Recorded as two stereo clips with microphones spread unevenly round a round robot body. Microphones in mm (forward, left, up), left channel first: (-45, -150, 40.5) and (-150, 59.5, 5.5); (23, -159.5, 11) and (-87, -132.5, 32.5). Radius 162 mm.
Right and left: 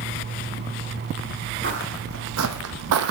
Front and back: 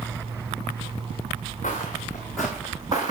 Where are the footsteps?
55° left, 1.0 m; by 3.1 s 125° left, 0.7 m.